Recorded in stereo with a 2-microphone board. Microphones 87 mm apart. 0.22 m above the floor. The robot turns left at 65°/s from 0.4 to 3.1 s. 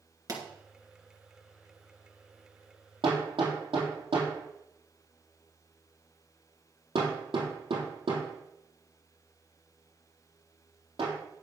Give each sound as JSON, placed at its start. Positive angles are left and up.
{"t": 0.3, "sound": "a pop", "side_deg": -40, "distance_m": 2.5}
{"t": 3.0, "sound": "hammering", "side_deg": -85, "distance_m": 3.0}